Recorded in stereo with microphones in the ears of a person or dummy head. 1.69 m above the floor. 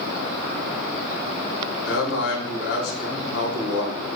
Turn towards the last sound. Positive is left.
turn(degrees=80)